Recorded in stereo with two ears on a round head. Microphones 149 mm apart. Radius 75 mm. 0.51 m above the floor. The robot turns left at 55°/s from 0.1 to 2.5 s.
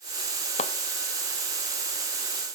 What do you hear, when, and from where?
0.6 s a clap: 40° left (ahead or behind); by 0.8 s 30° left (ahead or behind)